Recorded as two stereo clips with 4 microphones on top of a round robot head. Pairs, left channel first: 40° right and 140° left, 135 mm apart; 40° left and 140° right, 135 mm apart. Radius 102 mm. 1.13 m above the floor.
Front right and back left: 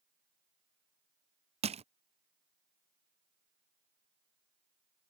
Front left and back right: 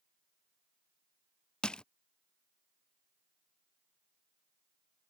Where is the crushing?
120° left.